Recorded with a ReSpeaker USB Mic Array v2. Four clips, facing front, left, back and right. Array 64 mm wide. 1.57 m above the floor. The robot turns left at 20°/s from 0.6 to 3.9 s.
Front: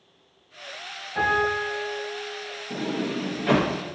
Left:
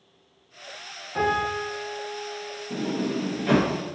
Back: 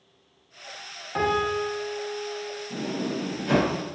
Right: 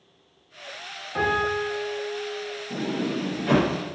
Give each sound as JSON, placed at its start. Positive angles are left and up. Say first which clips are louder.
{"t": 1.1, "sound": "a piano", "louder": "right 1 dB, front 1 dB", "azimuth_deg": -165, "distance_m": 1.4}
{"t": 2.7, "sound": "a sliding door", "louder": "left 1 dB, front 3 dB", "azimuth_deg": 30, "distance_m": 1.0}